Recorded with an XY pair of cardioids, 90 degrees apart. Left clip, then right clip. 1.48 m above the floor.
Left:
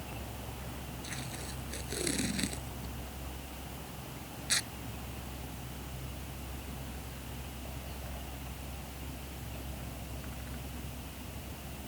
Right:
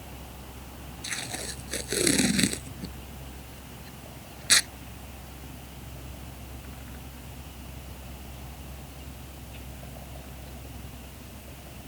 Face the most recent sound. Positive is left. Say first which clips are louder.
# right 10 dB
turn(degrees=-70)